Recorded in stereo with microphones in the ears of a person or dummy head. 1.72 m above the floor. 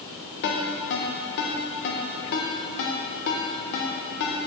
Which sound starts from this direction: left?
A ringtone, at 0.4 s.